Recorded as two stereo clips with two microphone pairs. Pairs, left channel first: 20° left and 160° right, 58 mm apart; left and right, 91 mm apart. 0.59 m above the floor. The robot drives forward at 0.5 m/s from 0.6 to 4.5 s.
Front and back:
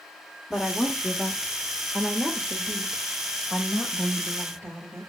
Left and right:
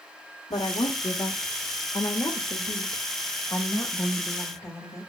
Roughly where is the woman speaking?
Left.